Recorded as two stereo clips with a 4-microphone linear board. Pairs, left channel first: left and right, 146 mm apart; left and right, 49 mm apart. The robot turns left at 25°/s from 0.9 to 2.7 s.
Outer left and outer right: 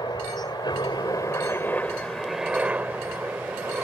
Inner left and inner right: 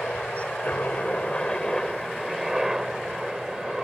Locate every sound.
0.0 s a helicopter: 35° left; by 3.9 s 10° right